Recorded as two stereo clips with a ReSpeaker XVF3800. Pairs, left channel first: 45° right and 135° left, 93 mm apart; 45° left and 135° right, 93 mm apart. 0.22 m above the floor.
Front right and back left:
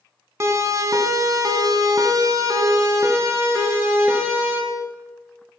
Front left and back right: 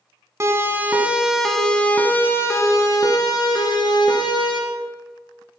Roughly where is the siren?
Behind.